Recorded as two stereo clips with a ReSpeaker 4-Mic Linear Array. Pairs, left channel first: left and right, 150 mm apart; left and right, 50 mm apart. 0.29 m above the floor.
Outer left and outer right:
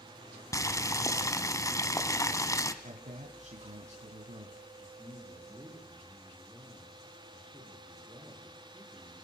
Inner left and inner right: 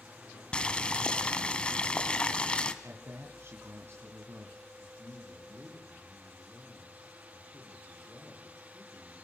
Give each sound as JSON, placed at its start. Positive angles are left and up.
{"t": 0.5, "sound": "boiling", "side_deg": 20, "distance_m": 1.3}
{"t": 2.8, "sound": "a man speaking", "side_deg": -55, "distance_m": 2.5}
{"t": 4.8, "sound": "a man speaking", "side_deg": -5, "distance_m": 8.0}